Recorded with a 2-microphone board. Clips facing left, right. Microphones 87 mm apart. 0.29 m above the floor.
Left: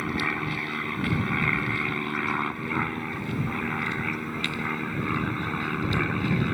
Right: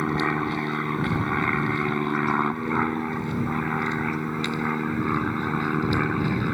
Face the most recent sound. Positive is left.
turn(degrees=-15)  # may be behind; listen again after turning